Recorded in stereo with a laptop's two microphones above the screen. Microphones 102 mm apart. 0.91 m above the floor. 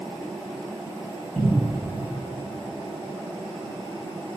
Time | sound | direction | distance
1.4 | a cupboard door | 5° left (ahead or behind) | 4.5 m